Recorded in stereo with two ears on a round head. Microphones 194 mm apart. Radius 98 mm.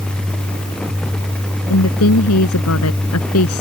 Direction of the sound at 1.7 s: 80° left.